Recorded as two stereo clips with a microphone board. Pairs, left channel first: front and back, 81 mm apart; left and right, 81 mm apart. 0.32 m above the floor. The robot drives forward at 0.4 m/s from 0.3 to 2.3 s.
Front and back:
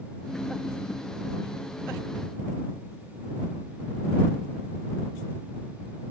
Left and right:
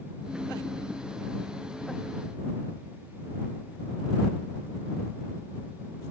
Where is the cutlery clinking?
I don't hear cutlery clinking.